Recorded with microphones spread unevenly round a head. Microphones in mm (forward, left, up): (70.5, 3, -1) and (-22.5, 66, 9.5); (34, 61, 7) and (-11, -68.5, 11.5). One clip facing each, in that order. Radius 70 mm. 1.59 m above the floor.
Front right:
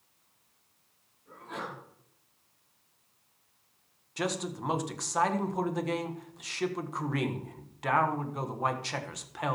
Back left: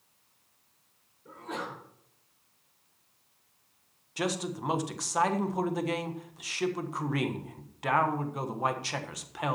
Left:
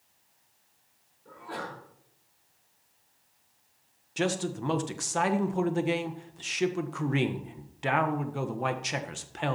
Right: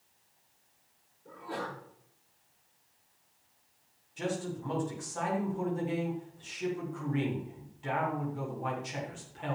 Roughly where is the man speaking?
Ahead left.